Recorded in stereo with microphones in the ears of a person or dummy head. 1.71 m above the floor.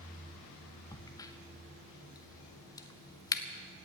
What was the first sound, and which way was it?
A crack, 20° left (ahead or behind).